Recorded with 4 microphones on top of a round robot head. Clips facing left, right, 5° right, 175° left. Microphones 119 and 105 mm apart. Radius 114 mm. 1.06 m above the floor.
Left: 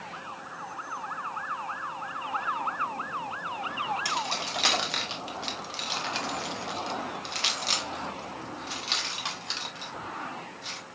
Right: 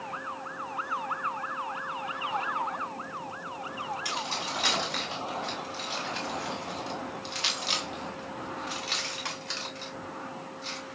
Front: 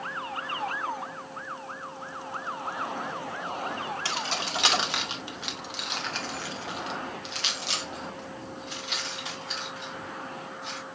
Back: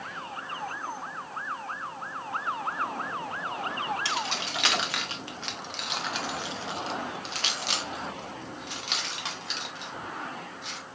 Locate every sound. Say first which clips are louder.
4.0 s keys jangling: left 2 dB, even; 45° left, 1.7 m; by 10.8 s 165° left, 3 m